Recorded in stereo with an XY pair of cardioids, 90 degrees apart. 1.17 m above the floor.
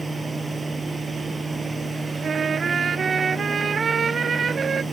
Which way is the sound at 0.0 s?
25° right.